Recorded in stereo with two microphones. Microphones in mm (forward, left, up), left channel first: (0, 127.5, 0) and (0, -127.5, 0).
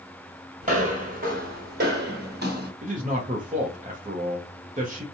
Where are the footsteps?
30° right (ahead or behind), 1.5 m; by 2.7 s 40° right (ahead or behind), 1.5 m.